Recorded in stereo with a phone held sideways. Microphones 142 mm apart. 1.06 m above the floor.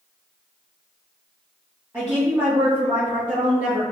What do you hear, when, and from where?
1.9 s a woman speaking: 15° right (ahead or behind), 1.3 m